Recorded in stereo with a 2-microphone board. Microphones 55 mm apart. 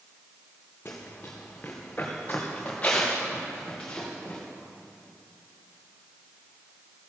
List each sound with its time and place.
0.8 s running footsteps: 40° left (ahead or behind), 1.9 m; by 4.4 s 20° left (ahead or behind), 3.5 m